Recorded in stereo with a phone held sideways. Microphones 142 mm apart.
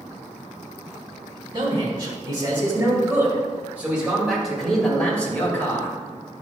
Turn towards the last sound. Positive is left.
turn(degrees=20)  # may be behind; listen again after turning